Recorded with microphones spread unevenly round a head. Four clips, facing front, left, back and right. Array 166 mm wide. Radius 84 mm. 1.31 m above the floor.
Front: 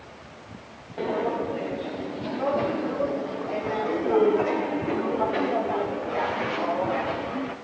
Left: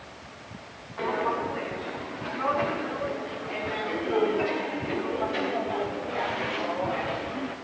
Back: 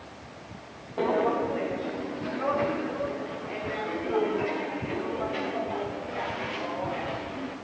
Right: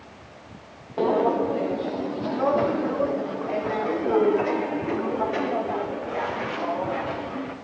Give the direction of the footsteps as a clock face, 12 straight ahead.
3 o'clock.